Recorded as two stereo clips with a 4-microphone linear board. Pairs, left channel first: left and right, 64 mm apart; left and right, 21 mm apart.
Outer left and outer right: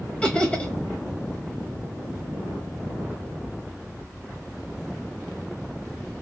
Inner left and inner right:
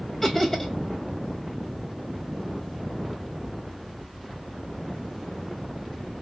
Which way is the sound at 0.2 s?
15° left (ahead or behind).